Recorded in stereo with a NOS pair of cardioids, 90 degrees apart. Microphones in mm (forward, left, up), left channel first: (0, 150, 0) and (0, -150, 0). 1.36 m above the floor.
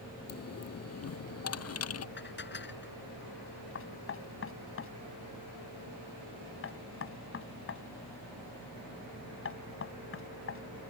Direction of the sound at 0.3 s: 55° left.